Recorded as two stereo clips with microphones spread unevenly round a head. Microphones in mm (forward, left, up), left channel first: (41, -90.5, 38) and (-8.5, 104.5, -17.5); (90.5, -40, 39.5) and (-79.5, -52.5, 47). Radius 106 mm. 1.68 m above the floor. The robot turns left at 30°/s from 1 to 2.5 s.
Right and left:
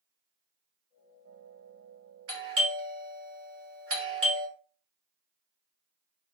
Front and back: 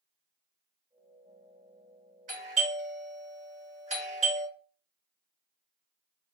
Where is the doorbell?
130° left, 1.3 m; by 4.5 s 125° left, 1.3 m.